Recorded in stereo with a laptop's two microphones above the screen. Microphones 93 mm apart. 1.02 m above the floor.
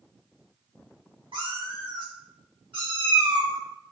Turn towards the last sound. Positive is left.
turn(degrees=-70)  # may be behind; listen again after turning